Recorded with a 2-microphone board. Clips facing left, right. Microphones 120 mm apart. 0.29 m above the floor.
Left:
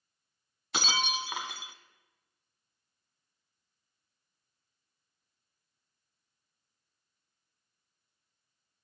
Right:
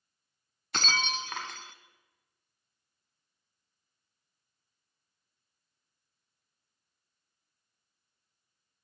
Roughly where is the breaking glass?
Centre.